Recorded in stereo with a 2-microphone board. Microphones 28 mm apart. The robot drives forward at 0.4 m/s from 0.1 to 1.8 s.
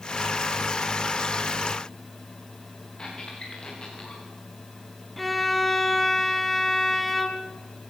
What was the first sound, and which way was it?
A squeak, 35° left (ahead or behind).